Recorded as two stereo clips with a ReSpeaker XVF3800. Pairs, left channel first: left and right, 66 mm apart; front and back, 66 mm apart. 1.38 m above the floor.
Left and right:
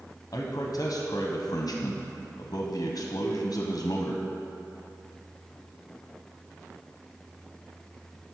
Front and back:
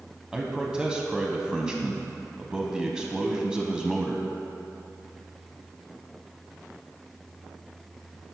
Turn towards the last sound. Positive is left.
turn(degrees=90)